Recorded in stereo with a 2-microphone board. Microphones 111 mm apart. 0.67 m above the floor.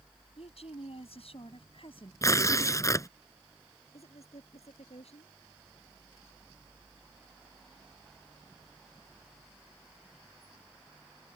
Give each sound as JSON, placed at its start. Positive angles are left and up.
{"t": 0.4, "sound": "a woman speaking", "side_deg": 75}
{"t": 2.2, "sound": "tearing paper", "side_deg": 30}
{"t": 3.9, "sound": "a woman speaking", "side_deg": 85}